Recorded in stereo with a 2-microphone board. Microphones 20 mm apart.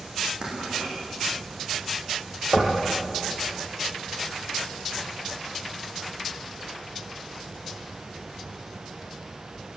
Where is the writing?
50° right (ahead or behind), 9.5 m.